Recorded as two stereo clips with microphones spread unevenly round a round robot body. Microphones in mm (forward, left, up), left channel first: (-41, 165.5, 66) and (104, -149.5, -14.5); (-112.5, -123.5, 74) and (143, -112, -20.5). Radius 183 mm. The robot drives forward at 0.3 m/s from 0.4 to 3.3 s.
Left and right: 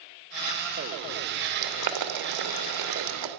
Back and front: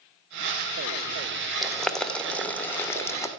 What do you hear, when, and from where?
1.6 s boiling: 75° right, 3 m; by 3.3 s 90° right, 2.5 m